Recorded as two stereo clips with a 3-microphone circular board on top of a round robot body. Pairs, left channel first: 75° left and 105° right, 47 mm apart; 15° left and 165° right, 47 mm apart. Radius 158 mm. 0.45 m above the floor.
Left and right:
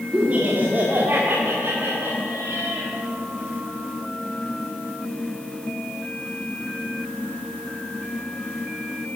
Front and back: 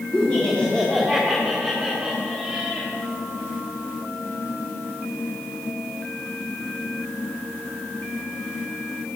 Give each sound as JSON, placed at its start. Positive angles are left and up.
{"t": 0.1, "sound": "laughter", "azimuth_deg": -45, "distance_m": 1.9}